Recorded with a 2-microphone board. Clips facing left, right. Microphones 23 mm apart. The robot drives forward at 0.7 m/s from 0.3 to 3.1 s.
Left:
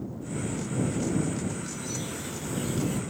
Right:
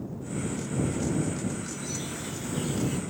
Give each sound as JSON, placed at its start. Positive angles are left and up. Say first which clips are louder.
{"t": 1.6, "sound": "a bird", "louder": "even", "side_deg": -10, "distance_m": 2.0}